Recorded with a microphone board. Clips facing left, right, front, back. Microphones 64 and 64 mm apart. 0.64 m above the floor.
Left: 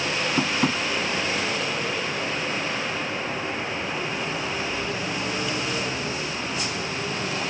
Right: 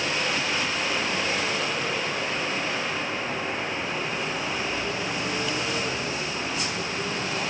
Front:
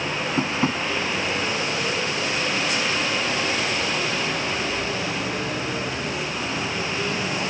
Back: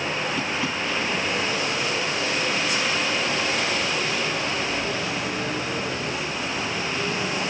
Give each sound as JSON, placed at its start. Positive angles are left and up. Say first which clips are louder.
{"t": 0.4, "sound": "tapping", "louder": "left 4 dB, front 3 dB", "azimuth_deg": 55}